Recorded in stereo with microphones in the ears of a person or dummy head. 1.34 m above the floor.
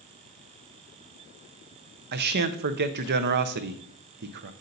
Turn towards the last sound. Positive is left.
turn(degrees=-55)  # may be behind; listen again after turning